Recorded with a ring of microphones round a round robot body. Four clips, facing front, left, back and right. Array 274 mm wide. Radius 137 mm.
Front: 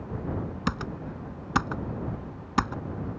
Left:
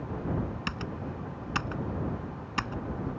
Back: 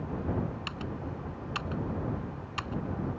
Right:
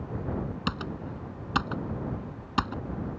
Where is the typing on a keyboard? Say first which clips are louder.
Right 2 dB, front 5 dB; 20° right.